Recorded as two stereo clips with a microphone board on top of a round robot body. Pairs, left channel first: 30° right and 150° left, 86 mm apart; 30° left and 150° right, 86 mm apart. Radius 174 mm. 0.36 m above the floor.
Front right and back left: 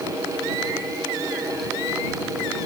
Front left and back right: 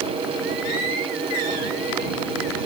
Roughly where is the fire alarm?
I don't hear a fire alarm.